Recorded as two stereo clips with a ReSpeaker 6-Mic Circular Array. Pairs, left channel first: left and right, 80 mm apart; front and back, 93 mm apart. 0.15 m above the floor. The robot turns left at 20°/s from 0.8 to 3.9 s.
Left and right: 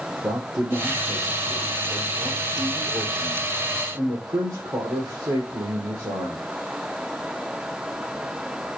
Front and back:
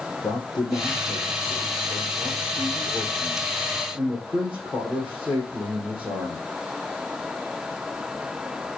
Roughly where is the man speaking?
Ahead right.